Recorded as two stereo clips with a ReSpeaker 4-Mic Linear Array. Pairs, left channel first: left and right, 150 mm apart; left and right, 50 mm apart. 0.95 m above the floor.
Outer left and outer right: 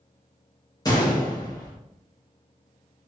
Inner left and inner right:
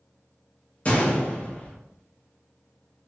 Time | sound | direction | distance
0.8 | a gunshot | 25° left (ahead or behind) | 0.7 m